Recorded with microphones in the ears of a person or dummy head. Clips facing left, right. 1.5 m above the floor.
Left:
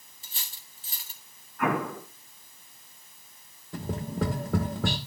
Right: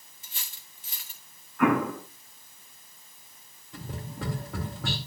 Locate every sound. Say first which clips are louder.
0.2 s cutlery clinking: left 1 dB; 40° left (ahead or behind), 1.6 m
1.6 s an explosion: right 5 dB; 60° right (ahead or behind), 9.5 m
3.7 s tapping: left 8 dB; 50° left (ahead or behind), 1.3 m